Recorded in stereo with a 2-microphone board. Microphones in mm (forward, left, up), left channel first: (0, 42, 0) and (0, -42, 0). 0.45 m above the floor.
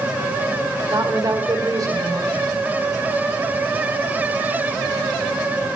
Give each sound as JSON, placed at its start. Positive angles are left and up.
{"t": 0.9, "sound": "a woman speaking", "side_deg": -45, "distance_m": 1.2}